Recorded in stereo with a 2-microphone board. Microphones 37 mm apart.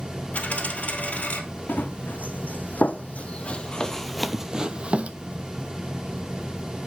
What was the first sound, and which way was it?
A dropped coin, 40° left (ahead or behind).